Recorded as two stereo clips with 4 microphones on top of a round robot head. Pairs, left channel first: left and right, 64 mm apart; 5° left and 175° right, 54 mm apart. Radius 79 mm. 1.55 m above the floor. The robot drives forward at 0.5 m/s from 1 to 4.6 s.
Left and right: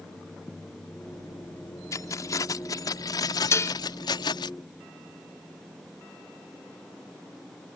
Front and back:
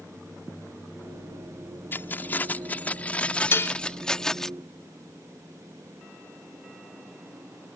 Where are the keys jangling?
55° left; by 4.5 s 85° left.